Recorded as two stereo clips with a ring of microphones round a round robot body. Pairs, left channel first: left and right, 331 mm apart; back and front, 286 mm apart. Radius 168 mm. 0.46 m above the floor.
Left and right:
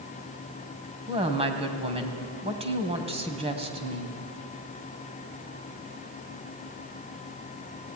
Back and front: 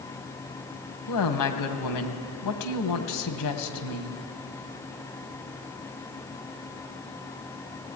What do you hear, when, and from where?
1.1 s a woman speaking: 165° right, 2.5 m